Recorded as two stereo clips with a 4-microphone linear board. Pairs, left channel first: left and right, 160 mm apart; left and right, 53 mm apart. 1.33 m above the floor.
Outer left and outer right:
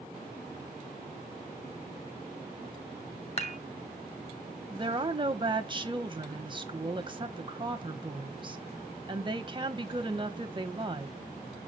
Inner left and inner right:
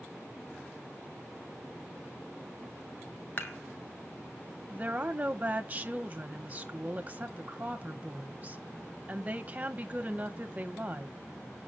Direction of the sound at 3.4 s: 40° left (ahead or behind).